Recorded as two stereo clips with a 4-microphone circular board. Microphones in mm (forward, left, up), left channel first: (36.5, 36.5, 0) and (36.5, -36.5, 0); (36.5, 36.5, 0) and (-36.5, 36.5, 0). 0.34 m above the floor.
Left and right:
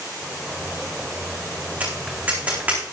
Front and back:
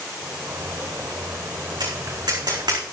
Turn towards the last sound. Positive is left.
turn(degrees=-160)